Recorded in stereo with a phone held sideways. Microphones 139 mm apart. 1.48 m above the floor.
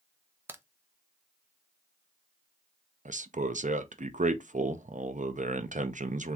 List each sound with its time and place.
0.5 s a crack: 15° right (ahead or behind), 0.6 m
3.0 s a man speaking: 60° right (ahead or behind), 0.6 m